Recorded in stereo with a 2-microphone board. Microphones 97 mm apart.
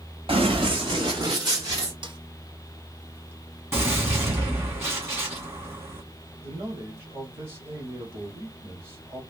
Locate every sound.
0.3 s running footsteps: 65° right (ahead or behind), 1.7 m; by 1.9 s 35° right (ahead or behind), 2.5 m
2.0 s a snare drum: 55° right (ahead or behind), 0.8 m
3.7 s a gunshot: 25° right (ahead or behind), 2 m
6.4 s a man speaking: 25° right (ahead or behind), 2.5 m